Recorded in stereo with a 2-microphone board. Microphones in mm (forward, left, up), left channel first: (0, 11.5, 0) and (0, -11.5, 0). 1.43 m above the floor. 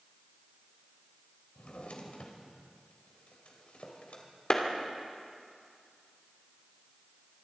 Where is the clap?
40° left (ahead or behind), 2.5 m.